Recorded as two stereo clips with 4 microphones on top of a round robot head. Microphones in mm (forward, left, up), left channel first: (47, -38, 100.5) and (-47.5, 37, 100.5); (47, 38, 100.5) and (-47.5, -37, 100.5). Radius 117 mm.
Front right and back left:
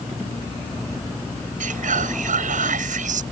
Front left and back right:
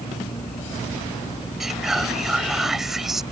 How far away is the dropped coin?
No dropped coin in this recording.